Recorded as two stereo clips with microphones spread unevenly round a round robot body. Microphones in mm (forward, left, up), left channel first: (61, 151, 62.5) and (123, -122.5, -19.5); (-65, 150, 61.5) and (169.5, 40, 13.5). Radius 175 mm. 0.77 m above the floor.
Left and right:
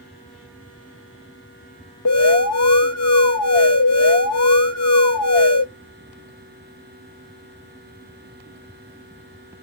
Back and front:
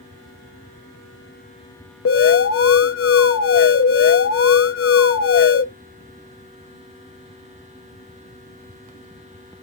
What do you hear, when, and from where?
2.0 s an alarm: 135° left, 1.0 m